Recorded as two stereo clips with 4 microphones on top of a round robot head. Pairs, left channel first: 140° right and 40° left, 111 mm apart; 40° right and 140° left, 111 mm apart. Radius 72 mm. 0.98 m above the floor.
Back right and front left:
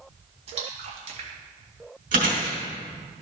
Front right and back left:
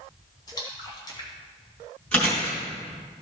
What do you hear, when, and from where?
0.5 s a splash: 15° left, 1.6 m
2.1 s chewing: 40° left, 3 m